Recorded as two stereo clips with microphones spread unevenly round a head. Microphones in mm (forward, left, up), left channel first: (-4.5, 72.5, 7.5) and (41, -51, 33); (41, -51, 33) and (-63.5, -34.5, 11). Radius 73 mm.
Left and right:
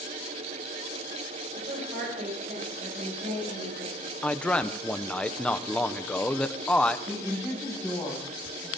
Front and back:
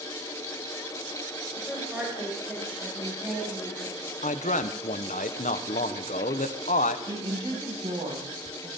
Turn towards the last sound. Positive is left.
turn(degrees=-150)